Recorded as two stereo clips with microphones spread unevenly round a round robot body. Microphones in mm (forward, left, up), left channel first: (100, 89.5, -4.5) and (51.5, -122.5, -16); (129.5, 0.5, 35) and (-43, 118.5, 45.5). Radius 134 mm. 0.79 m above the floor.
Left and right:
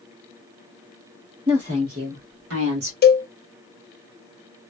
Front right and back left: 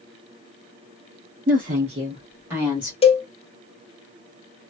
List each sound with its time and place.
1.5 s a woman speaking: 170° right, 1.3 m; by 2.9 s 125° right, 1.6 m
3.0 s a cowbell: 30° left, 0.8 m